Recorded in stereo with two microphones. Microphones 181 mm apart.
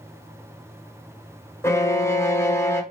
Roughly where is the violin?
Centre.